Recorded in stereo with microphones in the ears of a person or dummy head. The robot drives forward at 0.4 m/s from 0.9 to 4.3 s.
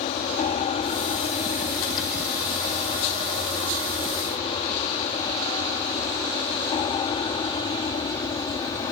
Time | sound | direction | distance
0.0 | an aircraft | 35° left (ahead or behind) | ?